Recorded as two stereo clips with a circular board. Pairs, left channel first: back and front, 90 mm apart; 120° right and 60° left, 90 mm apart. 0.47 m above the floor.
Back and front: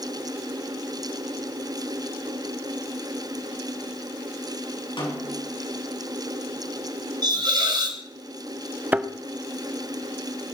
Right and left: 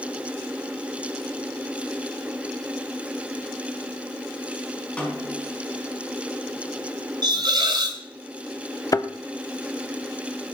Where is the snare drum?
165° left, 5.5 m.